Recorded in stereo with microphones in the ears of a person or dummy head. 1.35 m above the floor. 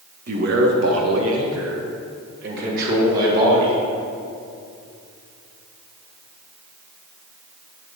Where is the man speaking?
55° right (ahead or behind), 1.3 m; by 3.8 s 50° right (ahead or behind), 3 m.